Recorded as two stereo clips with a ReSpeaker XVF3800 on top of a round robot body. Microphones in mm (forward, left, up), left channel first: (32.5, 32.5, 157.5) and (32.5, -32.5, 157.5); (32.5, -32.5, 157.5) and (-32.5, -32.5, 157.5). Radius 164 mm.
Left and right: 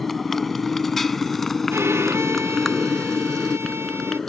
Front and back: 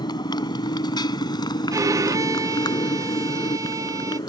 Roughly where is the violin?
Behind right.